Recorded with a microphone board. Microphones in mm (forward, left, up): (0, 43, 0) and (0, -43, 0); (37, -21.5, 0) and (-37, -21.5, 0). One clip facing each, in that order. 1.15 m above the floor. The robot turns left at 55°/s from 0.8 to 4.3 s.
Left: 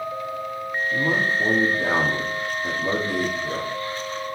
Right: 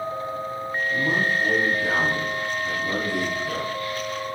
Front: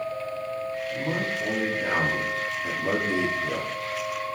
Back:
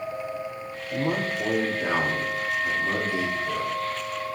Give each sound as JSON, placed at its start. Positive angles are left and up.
{"t": 0.9, "sound": "a man speaking", "azimuth_deg": 155, "distance_m": 1.9}